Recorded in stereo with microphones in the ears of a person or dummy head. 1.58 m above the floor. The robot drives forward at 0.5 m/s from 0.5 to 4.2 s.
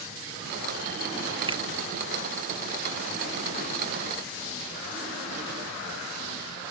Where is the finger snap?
15° right (ahead or behind).